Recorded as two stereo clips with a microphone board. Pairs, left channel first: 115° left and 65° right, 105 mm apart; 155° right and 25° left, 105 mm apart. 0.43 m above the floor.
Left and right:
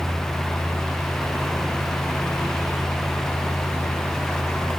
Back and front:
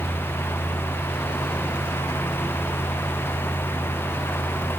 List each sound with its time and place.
Only background noise.